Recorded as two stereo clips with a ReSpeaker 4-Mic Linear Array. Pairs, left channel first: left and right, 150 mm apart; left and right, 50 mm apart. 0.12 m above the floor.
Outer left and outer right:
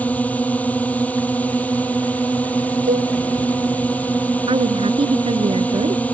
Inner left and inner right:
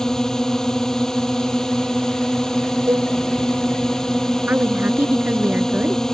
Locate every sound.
0.0 s a drone: 10° left (ahead or behind)
2.9 s a cowbell: 70° right (ahead or behind)
4.5 s a woman speaking: 40° right (ahead or behind)